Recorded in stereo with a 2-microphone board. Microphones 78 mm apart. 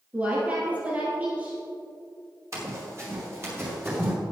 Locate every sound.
0.1 s a woman speaking: 20° right (ahead or behind), 3.5 m
2.5 s running footsteps: 40° right (ahead or behind), 5 m; by 4.2 s 30° right (ahead or behind), 5.5 m